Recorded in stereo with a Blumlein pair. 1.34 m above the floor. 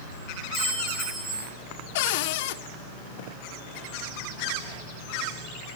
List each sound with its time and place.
0.5 s a clink: 35° right, 4 m
1.9 s a cupboard door: 50° left, 0.6 m